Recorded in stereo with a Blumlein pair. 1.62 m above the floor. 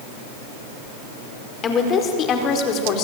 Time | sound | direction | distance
1.6 | a woman speaking | 25° left | 5 m